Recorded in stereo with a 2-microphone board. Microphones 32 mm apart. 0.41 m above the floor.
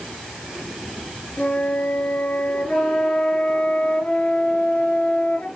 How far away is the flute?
About 3 m.